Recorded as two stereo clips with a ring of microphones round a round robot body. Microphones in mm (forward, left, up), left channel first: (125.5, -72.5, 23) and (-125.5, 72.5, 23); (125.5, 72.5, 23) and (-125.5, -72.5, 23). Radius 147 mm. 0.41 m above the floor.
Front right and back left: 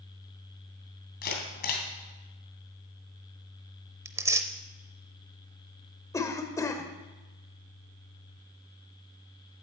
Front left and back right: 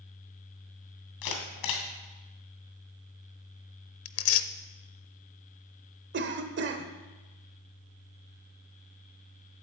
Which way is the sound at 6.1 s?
110° right.